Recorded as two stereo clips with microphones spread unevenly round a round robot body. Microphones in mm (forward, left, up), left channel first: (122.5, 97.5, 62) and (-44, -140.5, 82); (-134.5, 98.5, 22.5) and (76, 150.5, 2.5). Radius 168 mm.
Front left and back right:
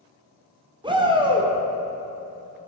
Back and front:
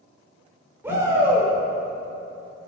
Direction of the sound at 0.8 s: 55° right.